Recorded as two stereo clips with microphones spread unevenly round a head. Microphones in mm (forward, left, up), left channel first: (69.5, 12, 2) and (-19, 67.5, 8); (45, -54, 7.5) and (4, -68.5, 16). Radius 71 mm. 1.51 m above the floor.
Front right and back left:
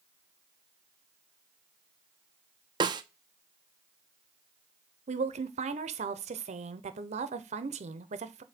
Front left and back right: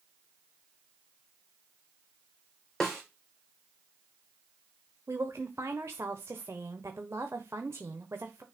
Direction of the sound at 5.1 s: 140° left.